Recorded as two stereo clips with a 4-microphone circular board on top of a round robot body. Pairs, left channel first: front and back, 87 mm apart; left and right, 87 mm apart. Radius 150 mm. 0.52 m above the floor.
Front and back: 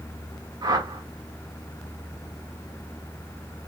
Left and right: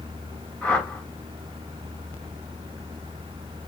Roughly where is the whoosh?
Behind.